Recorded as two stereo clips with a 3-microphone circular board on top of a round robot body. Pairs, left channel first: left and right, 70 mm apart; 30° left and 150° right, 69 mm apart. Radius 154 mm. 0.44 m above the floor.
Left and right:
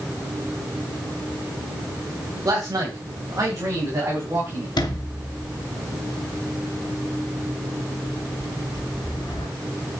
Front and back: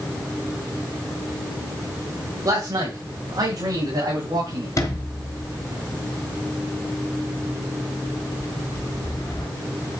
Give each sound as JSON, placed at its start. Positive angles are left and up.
{"t": 2.5, "sound": "a man speaking", "azimuth_deg": -130, "distance_m": 3.0}
{"t": 4.8, "sound": "a sliding door", "azimuth_deg": 75, "distance_m": 3.0}